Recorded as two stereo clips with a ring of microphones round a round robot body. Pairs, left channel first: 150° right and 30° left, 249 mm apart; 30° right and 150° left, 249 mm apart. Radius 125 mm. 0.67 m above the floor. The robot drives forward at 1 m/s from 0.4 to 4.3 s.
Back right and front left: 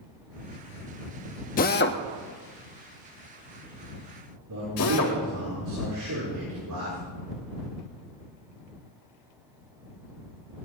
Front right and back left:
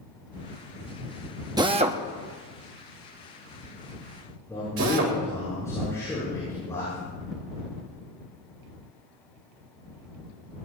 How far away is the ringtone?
No ringtone in this recording.